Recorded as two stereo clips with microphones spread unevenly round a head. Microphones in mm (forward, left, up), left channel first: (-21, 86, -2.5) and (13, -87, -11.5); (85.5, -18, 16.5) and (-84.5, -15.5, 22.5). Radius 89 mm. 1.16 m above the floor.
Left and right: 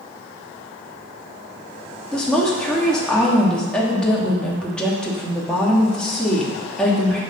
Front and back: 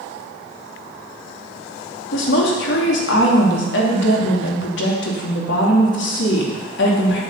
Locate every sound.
2.1 s a woman speaking: 15° left, 2.5 m